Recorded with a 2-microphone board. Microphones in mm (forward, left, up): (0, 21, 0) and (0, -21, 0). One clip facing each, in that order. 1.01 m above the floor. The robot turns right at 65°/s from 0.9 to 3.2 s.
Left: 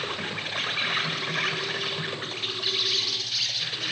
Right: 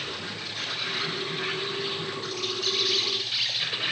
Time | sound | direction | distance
0.0 | an insect | 50° left | 8 m